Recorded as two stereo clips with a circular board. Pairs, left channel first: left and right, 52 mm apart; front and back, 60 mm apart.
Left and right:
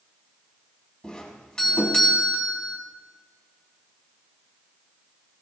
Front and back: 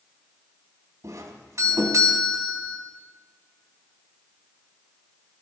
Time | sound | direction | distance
1.0 | a doorbell | 165° left | 3 m